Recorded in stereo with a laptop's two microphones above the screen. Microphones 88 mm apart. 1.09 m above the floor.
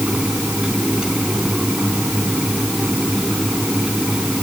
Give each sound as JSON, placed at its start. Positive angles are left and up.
{"t": 0.0, "sound": "a fan", "side_deg": -10}